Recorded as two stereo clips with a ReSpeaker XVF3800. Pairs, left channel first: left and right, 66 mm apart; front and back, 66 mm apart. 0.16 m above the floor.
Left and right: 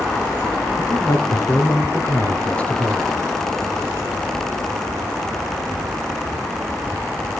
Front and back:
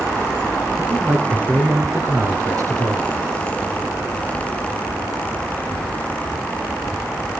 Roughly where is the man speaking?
Left.